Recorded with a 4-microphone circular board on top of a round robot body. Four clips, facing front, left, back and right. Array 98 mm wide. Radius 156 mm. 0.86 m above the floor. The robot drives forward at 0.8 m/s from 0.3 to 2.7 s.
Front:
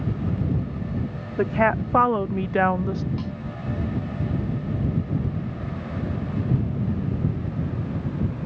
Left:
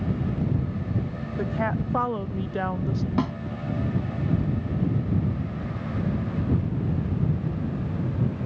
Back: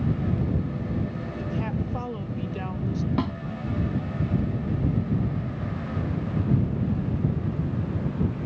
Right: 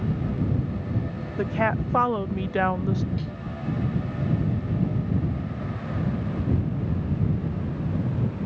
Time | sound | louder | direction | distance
1.4 | a woman speaking | right 3 dB, front 11 dB | 10° right | ?
3.2 | a snare drum | left 10 dB, back 5 dB | 120° left | ?